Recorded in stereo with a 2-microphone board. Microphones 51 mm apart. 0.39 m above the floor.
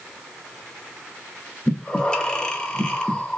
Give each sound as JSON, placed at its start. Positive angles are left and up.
{"t": 1.7, "sound": "breathing", "side_deg": 20, "distance_m": 0.7}